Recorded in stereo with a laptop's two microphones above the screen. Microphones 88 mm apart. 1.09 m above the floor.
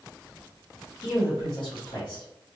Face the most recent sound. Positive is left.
turn(degrees=80)